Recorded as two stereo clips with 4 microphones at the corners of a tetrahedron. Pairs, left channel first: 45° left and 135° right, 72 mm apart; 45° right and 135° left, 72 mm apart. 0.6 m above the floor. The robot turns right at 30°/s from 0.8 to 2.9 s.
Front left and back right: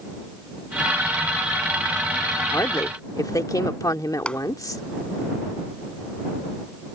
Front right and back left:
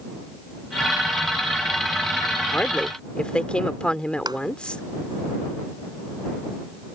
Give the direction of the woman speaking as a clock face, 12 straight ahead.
11 o'clock.